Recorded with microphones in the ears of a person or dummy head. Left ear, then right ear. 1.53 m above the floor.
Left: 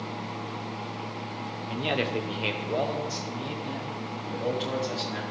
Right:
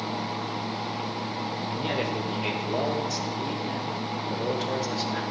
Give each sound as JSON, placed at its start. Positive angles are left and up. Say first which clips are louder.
{"t": 1.7, "sound": "a man speaking", "louder": "left 3 dB", "side_deg": 30, "distance_m": 0.6}